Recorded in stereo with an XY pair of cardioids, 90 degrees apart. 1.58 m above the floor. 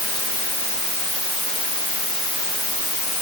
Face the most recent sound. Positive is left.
No sound to turn to.